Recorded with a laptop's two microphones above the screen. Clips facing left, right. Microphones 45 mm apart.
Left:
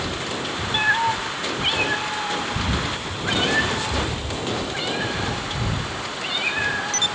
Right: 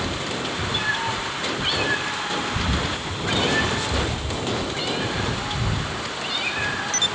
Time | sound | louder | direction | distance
0.7 | a cat meowing | left 7 dB | 45° left (ahead or behind) | 2.5 m